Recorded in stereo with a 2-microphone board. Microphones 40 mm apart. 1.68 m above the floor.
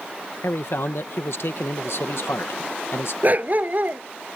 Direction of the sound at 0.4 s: 70° left (ahead or behind).